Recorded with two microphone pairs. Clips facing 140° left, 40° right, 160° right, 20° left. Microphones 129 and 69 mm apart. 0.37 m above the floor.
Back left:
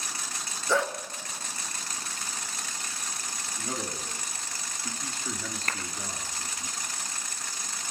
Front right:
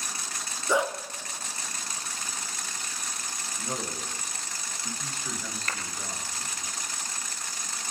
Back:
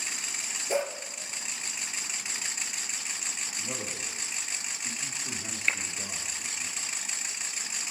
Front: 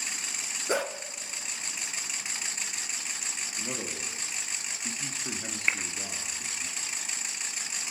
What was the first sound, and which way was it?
A dog barking, 35° left.